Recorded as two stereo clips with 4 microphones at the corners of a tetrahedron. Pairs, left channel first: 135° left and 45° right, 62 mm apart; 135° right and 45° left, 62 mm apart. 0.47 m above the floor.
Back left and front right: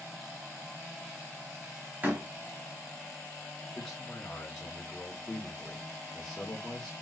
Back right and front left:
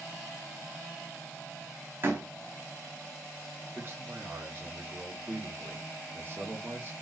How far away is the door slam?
About 1.2 m.